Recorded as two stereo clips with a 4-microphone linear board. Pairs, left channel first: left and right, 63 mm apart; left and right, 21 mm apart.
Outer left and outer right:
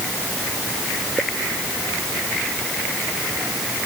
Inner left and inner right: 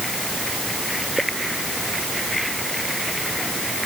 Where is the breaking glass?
No breaking glass in this recording.